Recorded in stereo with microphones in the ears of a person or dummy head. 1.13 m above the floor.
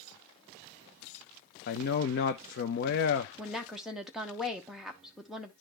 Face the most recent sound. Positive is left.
turn(degrees=-5)  # may be behind; listen again after turning